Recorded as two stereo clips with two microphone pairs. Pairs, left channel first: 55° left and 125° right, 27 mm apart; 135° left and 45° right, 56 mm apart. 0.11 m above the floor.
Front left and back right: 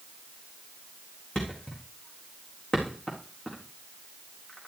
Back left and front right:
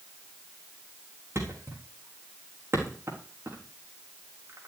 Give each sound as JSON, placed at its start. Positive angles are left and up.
{"t": 1.4, "sound": "a thud", "azimuth_deg": -5, "distance_m": 4.0}